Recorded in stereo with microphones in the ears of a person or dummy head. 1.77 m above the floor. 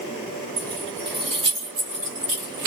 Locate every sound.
0.6 s keys jangling: 15° right (ahead or behind), 1.7 m; by 2.7 s 50° right (ahead or behind), 1.8 m